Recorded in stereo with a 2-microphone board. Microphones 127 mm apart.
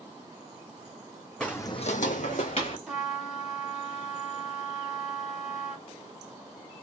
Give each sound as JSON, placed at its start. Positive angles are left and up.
{"t": 1.4, "sound": "footsteps", "side_deg": 5, "distance_m": 0.9}
{"t": 2.9, "sound": "a trumpet", "side_deg": 0, "distance_m": 1.2}